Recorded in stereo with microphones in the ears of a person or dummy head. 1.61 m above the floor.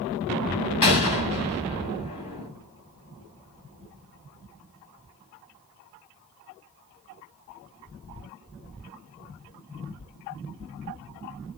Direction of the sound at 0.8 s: 30° left (ahead or behind).